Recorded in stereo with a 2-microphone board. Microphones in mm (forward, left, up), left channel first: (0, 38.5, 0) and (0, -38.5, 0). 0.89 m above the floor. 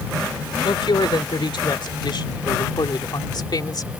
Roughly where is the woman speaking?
Left.